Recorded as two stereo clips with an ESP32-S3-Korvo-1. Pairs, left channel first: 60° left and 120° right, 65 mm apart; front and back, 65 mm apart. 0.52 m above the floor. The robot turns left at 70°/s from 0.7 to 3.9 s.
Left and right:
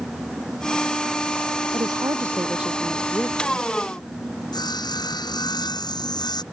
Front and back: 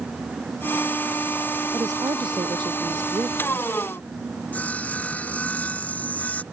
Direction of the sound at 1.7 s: 135° right.